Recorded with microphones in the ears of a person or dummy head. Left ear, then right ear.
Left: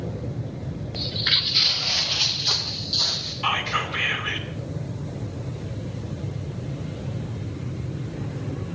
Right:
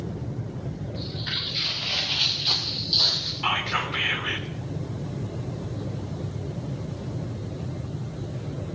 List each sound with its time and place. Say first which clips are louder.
0.9 s footsteps: left 9 dB; 40° left (ahead or behind), 1.5 m; by 3.3 s 20° right (ahead or behind), 3 m
3.4 s whispering: left 2 dB; 10° right (ahead or behind), 3.5 m